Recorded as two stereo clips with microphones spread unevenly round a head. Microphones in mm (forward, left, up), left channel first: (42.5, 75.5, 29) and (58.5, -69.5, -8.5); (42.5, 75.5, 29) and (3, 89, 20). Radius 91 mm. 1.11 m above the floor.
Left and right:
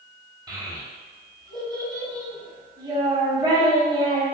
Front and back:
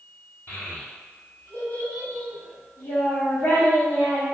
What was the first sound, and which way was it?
A child speaking, 15° right.